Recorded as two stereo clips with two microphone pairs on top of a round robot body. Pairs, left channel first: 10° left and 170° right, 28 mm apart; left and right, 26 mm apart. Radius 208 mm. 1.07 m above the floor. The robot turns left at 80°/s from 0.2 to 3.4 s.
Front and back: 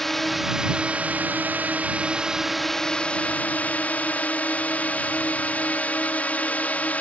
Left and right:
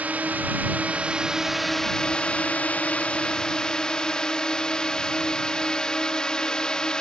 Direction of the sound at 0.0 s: 70° right.